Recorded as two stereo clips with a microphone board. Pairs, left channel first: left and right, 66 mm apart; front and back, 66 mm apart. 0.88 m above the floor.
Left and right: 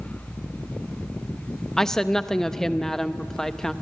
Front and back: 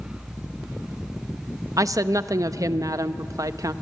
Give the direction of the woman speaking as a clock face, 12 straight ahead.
6 o'clock.